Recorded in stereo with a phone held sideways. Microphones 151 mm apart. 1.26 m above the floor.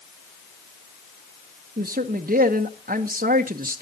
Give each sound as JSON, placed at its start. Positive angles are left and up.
{"t": 1.8, "sound": "a man speaking", "side_deg": -80, "distance_m": 0.8}